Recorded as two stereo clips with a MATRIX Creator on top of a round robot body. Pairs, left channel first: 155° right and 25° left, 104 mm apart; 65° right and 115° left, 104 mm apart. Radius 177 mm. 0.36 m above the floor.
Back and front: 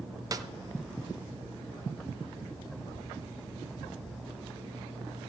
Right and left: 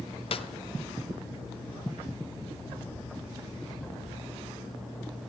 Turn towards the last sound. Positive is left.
turn(degrees=-35)